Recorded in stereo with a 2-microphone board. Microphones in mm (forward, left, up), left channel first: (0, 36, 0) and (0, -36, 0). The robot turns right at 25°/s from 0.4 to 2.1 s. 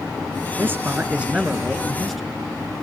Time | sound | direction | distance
0.6 | a man speaking | 35° right | 2 m